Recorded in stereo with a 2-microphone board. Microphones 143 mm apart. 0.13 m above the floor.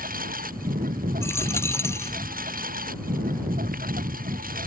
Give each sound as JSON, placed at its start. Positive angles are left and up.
{"t": 0.0, "sound": "a lawn mower", "side_deg": -85}
{"t": 1.2, "sound": "a dropped coin", "side_deg": 20}